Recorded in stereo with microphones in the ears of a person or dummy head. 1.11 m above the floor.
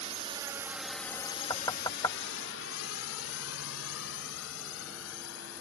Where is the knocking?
20° left (ahead or behind).